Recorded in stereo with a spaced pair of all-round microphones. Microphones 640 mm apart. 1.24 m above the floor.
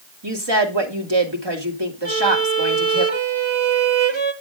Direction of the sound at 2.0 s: 45° right (ahead or behind).